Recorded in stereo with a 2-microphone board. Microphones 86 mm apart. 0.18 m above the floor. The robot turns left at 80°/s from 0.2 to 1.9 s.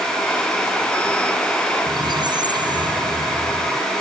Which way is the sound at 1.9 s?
60° right (ahead or behind).